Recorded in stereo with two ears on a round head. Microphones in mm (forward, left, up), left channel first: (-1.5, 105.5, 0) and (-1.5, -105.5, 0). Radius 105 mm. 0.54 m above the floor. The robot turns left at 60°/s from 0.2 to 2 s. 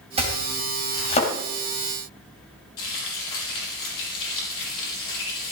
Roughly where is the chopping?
Right.